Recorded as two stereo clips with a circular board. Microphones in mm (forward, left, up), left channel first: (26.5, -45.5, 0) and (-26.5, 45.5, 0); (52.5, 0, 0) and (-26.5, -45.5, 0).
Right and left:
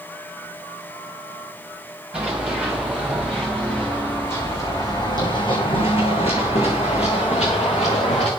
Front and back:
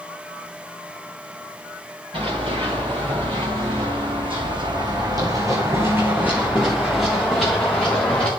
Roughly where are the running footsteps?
Behind.